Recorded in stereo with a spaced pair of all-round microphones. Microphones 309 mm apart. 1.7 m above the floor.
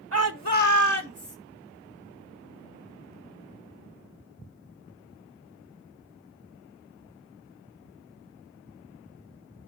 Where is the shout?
45° right (ahead or behind), 1.0 m; by 1.4 s 75° right (ahead or behind), 2.5 m.